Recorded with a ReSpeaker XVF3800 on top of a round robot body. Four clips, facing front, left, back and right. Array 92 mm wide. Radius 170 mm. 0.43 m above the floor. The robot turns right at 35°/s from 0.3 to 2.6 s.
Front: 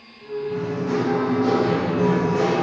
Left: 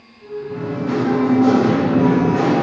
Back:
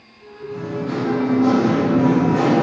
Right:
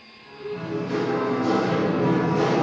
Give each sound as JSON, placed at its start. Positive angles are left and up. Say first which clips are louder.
{"t": 0.5, "sound": "singing", "louder": "left 4 dB, back 1 dB", "azimuth_deg": 60, "distance_m": 6.5}